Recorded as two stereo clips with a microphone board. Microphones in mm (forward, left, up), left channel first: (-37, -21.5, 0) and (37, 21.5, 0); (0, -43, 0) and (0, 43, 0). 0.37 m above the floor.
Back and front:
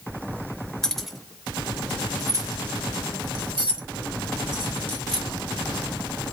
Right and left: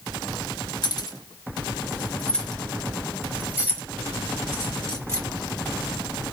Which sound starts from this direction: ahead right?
Keys jangling, at 0.8 s.